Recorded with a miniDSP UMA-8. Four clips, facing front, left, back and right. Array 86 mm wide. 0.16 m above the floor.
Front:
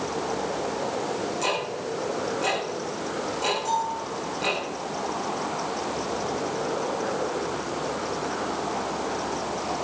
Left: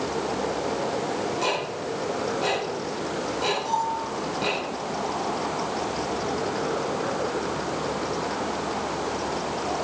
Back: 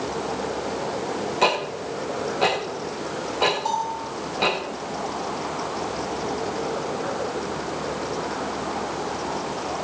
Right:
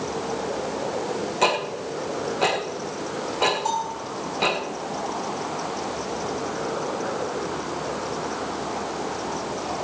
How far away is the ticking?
About 4 m.